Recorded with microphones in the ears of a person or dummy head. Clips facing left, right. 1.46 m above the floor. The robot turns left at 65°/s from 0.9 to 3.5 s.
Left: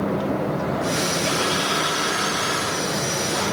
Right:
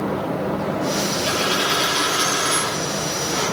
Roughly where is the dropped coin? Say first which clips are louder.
Right 1 dB; ahead.